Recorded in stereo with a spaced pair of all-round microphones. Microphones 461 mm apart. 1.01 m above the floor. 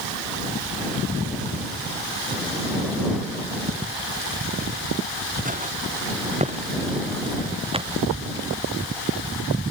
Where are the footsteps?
20° right (ahead or behind); by 8.0 s 10° right (ahead or behind).